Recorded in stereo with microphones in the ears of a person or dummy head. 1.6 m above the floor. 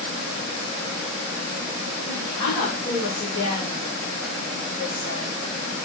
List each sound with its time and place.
2.1 s a woman speaking: 35° left (ahead or behind), 1.1 m; by 5.4 s 25° left (ahead or behind), 3 m